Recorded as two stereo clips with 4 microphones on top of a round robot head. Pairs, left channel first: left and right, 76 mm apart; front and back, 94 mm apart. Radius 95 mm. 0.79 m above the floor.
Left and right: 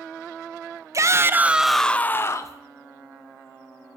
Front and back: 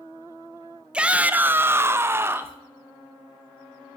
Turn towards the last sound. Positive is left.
turn(degrees=115)